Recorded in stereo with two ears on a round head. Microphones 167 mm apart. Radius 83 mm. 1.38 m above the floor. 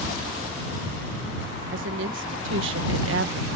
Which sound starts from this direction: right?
A woman speaking, at 1.7 s.